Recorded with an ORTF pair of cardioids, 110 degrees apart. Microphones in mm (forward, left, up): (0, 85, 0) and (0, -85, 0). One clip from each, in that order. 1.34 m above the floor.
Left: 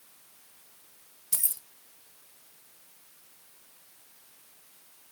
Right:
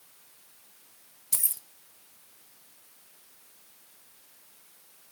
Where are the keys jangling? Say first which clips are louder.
Right 1 dB; 5° right, 0.7 m.